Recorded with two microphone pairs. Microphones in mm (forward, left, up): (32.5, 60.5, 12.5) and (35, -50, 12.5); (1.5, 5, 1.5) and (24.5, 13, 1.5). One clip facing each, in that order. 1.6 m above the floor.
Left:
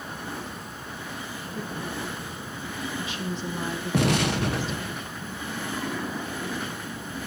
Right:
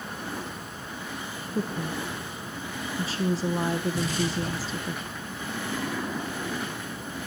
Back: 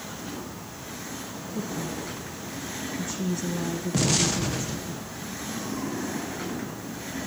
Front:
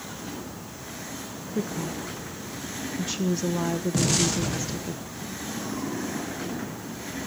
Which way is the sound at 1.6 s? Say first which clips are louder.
Right 4 dB, front 2 dB; 35° right.